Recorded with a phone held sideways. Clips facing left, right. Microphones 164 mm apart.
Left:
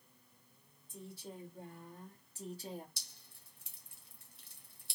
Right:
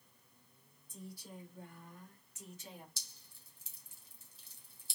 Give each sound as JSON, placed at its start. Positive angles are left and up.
{"t": 0.9, "sound": "a woman speaking", "side_deg": 25, "distance_m": 3.0}
{"t": 3.0, "sound": "dripping", "side_deg": 60, "distance_m": 1.8}